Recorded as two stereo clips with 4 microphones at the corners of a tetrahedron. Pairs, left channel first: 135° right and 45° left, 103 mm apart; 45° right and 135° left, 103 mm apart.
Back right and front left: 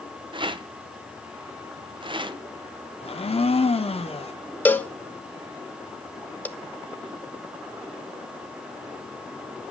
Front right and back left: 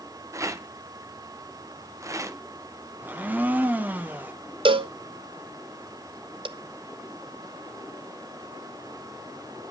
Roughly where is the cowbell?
Behind left.